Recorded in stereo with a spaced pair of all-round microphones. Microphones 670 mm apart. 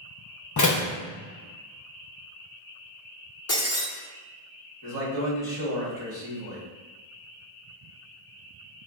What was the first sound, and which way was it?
A door slam, 25° left (ahead or behind).